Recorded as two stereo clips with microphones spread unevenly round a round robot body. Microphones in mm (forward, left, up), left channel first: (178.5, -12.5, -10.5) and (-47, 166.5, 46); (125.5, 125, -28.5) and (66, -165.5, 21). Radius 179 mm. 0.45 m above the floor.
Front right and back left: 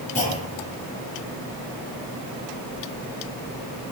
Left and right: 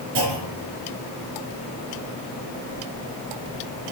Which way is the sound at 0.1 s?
100° right.